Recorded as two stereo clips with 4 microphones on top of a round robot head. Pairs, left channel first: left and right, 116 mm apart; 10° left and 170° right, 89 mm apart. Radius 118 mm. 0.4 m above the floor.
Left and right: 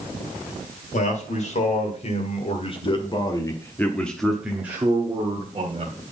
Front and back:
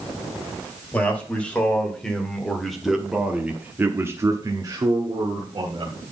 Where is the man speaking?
80° left, 2.5 m; by 5.9 s 135° right, 2.0 m.